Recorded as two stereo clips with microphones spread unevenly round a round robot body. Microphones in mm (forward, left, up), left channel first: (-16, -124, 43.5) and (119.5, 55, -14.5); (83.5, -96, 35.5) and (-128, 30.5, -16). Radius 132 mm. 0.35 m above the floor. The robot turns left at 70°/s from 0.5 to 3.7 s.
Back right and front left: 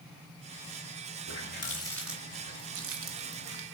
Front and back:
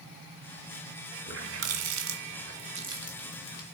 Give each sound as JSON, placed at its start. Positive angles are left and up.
{"t": 1.3, "sound": "a running tap", "azimuth_deg": -165, "distance_m": 1.9}